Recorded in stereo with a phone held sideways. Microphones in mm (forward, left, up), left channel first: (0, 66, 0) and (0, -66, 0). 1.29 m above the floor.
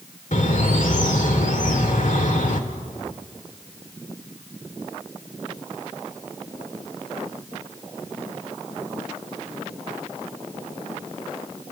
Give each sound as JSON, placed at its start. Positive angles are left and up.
{"t": 0.3, "sound": "a bird", "side_deg": 70, "distance_m": 2.0}